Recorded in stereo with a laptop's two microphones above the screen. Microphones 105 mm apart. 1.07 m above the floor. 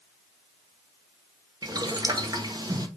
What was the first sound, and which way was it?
Boiling, 35° right (ahead or behind).